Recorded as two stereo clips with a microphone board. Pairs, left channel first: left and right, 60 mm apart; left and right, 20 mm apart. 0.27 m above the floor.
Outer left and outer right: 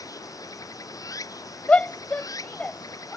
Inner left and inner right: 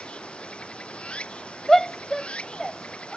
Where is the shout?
20° left (ahead or behind).